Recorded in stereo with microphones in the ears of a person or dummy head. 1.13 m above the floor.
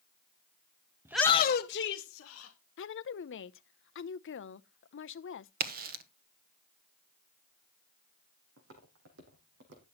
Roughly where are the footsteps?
Right.